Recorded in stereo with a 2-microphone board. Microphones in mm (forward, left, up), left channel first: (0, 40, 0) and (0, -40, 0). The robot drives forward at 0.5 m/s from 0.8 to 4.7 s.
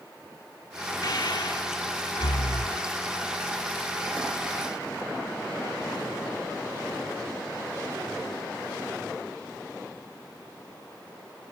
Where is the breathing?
60° left (ahead or behind).